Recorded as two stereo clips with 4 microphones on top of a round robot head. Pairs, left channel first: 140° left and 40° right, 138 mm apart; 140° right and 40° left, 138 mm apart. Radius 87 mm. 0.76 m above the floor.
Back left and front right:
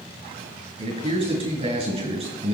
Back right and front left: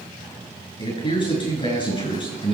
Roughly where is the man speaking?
Right.